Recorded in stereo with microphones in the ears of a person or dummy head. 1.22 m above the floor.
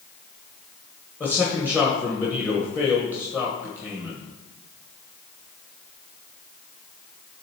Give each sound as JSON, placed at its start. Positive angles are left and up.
{"t": 1.2, "sound": "a man speaking", "side_deg": 15, "distance_m": 1.2}